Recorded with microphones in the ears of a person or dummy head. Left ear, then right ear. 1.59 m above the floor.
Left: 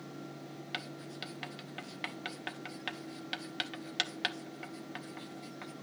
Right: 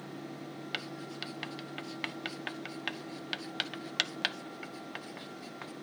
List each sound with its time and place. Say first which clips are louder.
0.7 s writing: right 2 dB; 10° right (ahead or behind), 0.6 m